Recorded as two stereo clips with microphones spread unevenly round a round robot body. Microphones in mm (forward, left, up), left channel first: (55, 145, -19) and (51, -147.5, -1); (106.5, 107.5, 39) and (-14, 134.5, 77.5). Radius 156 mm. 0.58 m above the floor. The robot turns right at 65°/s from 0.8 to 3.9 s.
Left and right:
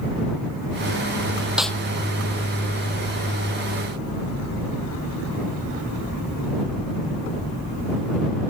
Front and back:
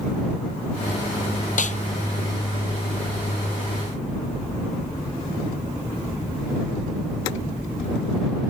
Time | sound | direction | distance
1.6 | a snare drum | 5° right | ?